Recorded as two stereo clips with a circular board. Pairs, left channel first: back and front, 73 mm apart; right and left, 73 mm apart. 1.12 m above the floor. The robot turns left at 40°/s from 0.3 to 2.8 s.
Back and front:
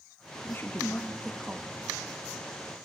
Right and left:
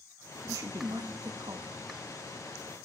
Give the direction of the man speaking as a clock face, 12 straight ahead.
8 o'clock.